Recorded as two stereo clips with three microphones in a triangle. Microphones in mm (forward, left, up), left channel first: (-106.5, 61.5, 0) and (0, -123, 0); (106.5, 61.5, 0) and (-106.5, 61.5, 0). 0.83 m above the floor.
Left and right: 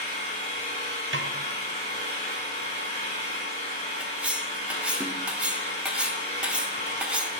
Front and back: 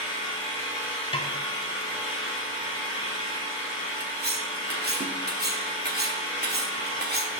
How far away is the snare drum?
About 0.5 m.